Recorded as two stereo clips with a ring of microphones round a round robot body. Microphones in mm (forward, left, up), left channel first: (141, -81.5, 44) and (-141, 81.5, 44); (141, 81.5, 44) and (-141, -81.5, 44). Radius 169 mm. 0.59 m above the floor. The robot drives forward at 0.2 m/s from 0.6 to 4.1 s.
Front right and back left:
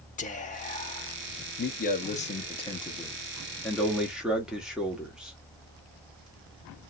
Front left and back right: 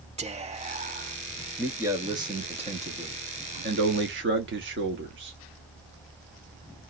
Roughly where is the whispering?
Right.